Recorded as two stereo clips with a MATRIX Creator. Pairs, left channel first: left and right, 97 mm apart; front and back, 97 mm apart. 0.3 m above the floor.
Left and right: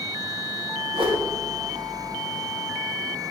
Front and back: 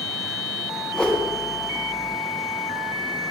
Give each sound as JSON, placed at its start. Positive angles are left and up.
{"t": 0.9, "sound": "a whoosh", "azimuth_deg": -80, "distance_m": 2.5}